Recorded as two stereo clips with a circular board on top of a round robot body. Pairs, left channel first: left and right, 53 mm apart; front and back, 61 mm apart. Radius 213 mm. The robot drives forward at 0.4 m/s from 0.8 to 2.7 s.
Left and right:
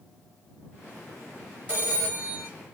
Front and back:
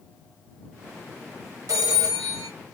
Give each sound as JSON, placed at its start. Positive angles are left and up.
{"t": 1.7, "sound": "a phone ringing", "azimuth_deg": -155, "distance_m": 2.5}